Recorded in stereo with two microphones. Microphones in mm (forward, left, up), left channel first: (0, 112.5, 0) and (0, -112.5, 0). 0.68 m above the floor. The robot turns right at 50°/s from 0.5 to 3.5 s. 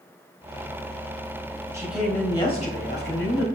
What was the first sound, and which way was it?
A woman speaking, 15° right.